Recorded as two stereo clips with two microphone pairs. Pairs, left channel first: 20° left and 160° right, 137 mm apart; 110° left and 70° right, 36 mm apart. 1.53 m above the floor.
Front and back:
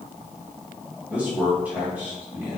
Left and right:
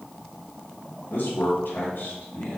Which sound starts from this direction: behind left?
A man speaking, at 1.1 s.